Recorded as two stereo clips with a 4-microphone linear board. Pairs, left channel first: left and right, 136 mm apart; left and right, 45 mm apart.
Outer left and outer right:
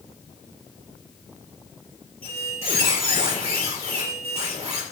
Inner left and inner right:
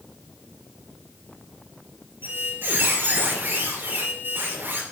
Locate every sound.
2.2 s a squeak: 50° right (ahead or behind), 4 m